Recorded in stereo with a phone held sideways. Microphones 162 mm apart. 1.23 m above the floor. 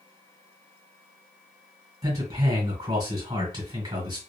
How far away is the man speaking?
About 1.9 m.